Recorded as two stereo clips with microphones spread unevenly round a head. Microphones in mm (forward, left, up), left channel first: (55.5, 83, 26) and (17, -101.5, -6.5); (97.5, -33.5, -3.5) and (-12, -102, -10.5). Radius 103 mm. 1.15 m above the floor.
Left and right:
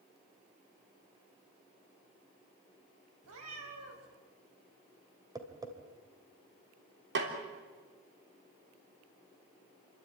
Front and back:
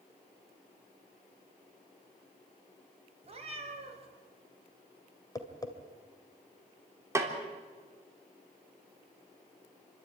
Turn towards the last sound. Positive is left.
turn(degrees=-80)